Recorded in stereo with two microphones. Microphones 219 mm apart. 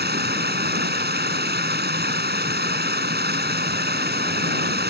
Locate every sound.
0.0 s running water: 50° right (ahead or behind)